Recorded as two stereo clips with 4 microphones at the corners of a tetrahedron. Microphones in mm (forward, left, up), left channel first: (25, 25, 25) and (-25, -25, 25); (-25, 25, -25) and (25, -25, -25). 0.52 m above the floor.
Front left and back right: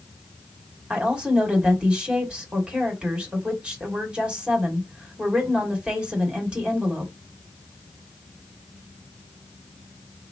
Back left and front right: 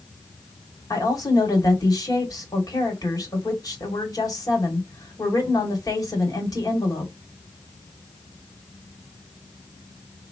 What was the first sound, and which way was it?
A woman speaking, 150° left.